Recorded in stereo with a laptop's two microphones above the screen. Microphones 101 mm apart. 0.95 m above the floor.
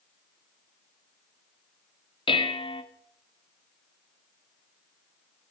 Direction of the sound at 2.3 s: 55° left (ahead or behind).